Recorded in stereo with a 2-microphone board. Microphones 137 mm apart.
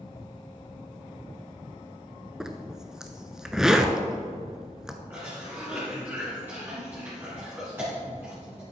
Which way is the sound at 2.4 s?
5° right (ahead or behind).